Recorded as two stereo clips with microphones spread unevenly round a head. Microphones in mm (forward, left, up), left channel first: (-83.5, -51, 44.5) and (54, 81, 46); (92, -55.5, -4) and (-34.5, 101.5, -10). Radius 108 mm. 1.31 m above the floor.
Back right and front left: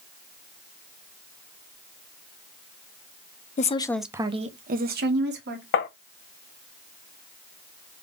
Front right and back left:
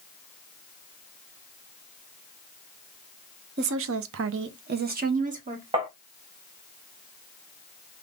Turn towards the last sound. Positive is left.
turn(degrees=-160)